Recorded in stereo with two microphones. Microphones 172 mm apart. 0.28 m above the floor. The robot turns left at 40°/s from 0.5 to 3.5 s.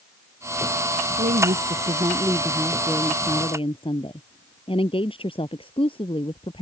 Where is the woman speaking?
120° right; by 6.6 s 150° left.